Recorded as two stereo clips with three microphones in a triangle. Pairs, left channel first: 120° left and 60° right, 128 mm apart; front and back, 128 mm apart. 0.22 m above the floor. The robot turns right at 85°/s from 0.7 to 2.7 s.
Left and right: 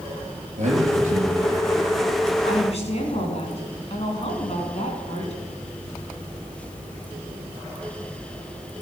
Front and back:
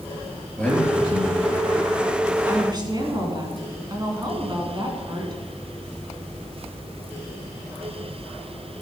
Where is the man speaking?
80° right, 4 m; by 1.6 s straight ahead, 4 m.